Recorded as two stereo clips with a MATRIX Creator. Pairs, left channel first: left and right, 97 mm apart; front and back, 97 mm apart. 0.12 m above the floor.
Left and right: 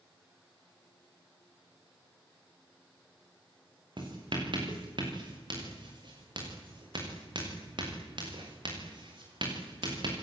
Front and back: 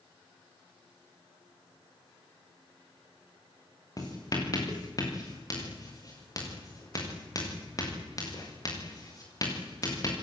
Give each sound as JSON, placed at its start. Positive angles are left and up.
{"t": 4.0, "sound": "writing", "azimuth_deg": -50, "distance_m": 7.0}